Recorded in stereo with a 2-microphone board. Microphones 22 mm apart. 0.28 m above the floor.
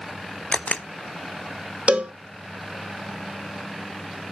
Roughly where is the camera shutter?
Left.